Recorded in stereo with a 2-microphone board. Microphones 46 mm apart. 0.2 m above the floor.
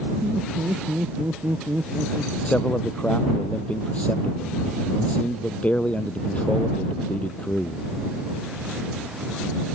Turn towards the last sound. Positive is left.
turn(degrees=30)  # may be behind; listen again after turning